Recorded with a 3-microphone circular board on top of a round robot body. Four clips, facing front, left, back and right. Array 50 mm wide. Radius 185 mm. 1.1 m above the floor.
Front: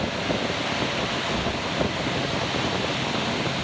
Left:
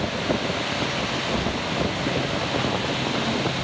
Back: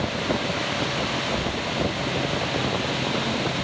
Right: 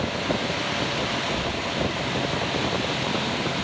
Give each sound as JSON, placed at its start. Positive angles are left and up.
{"t": 1.3, "sound": "keys jangling", "azimuth_deg": 65, "distance_m": 0.8}